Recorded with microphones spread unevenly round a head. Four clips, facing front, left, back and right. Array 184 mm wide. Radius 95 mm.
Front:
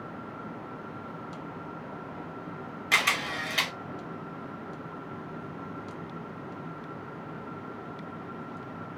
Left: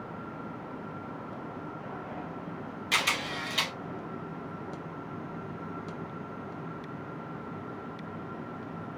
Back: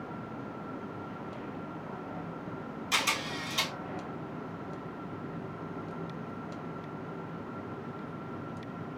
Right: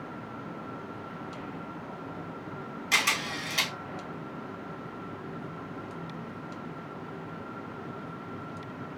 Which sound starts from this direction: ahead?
A camera shutter, at 2.9 s.